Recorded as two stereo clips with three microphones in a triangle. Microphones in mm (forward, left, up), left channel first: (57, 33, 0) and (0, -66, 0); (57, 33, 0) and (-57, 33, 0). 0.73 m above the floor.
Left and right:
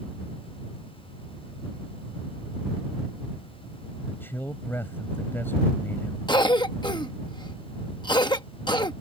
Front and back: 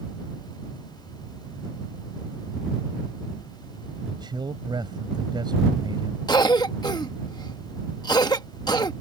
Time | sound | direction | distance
4.1 | a man speaking | 130° left | ?
6.3 | a cough | 35° left | ?